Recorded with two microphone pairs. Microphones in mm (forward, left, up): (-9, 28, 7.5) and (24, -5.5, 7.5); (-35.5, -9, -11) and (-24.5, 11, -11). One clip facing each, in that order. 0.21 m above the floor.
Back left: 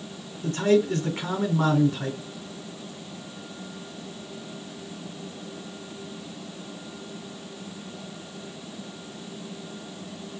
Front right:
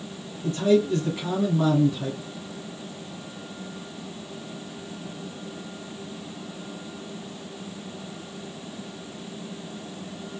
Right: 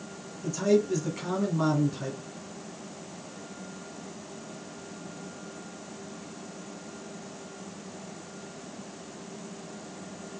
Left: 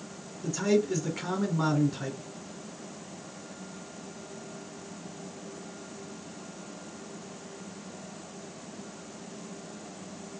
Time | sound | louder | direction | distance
0.4 | a man speaking | even, right 2 dB | 140° left | 1.6 m